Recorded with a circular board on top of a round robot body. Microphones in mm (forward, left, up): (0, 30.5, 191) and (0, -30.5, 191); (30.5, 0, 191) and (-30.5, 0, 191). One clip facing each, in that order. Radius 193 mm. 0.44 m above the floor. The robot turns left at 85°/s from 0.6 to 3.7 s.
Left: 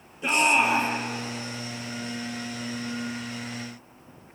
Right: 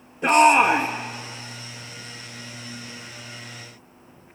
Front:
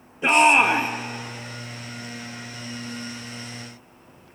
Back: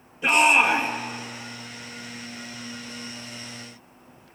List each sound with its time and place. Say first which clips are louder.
0.2 s a shout: right 7 dB, front 2 dB; 65° right, 2 m; by 0.9 s 90° right, 2 m